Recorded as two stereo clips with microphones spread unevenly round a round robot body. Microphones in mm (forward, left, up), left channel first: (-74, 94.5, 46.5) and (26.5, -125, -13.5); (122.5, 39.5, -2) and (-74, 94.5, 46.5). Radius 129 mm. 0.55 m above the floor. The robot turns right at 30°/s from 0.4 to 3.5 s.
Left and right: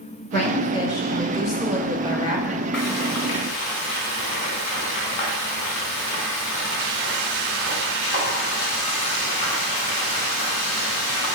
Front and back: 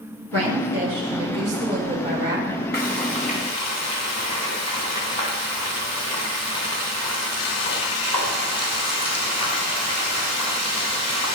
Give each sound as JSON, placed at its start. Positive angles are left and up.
{"t": 0.3, "sound": "a woman speaking", "azimuth_deg": 180, "distance_m": 2.5}
{"t": 2.7, "sound": "frying", "azimuth_deg": 25, "distance_m": 3.5}